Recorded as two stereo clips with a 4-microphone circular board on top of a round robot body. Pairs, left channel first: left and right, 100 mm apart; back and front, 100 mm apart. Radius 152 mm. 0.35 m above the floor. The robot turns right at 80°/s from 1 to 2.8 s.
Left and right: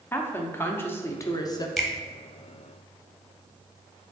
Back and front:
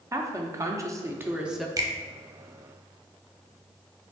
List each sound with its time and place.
0.1 s a woman speaking: 35° left, 0.9 m; by 1.7 s 90° left, 0.9 m
1.8 s a finger snap: 5° left, 1.0 m; by 1.9 s 15° left, 1.0 m